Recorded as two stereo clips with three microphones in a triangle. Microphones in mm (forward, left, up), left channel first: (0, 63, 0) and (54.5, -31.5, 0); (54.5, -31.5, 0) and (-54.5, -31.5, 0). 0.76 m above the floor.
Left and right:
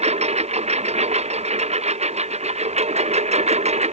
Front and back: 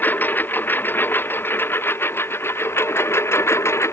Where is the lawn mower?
75° right; by 3.9 s 65° right.